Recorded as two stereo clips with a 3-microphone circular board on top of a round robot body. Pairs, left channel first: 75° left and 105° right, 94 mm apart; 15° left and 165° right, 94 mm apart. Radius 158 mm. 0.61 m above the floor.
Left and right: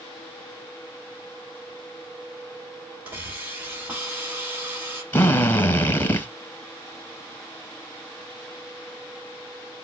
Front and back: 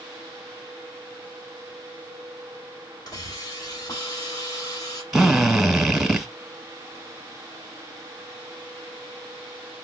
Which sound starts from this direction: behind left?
A drill, at 5.1 s.